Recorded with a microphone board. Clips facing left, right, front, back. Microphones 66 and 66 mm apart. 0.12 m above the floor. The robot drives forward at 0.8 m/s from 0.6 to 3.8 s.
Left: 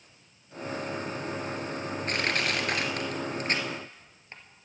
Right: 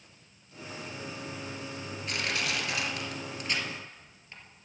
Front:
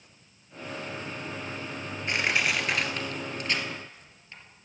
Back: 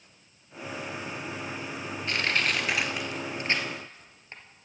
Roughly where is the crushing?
Ahead left.